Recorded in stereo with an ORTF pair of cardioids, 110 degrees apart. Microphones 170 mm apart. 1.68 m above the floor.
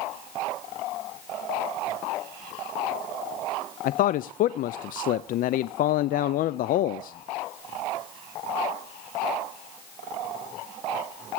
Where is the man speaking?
60° left, 0.6 m.